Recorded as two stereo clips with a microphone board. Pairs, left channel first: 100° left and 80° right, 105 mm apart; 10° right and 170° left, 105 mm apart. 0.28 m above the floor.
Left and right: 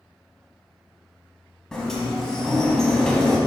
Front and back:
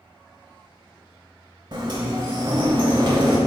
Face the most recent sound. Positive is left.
turn(degrees=180)